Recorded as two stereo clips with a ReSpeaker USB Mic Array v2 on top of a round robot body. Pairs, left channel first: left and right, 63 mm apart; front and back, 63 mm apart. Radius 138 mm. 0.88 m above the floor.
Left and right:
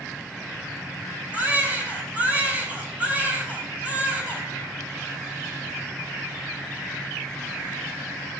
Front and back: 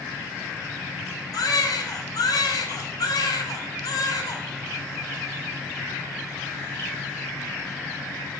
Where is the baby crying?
20° right, 4 m.